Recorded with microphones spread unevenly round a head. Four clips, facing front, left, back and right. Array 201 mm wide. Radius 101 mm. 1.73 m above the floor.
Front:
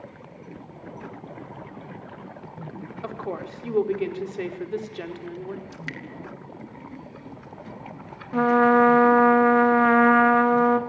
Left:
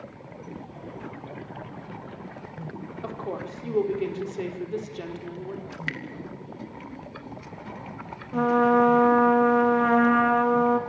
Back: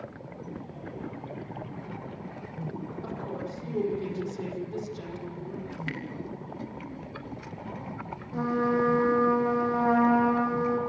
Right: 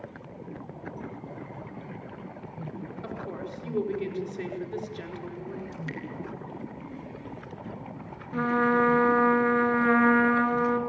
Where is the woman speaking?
20° left, 4.5 m.